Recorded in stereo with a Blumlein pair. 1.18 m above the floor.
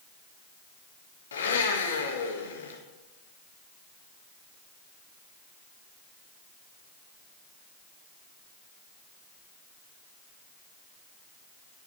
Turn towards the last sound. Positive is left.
turn(degrees=65)